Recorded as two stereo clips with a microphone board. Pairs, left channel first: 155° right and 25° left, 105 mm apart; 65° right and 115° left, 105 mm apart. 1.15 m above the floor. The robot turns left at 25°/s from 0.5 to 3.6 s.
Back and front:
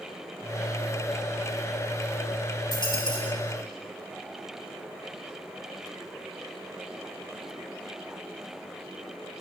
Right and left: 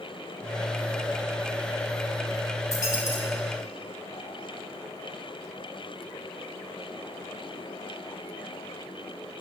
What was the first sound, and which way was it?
A dropped coin, 120° right.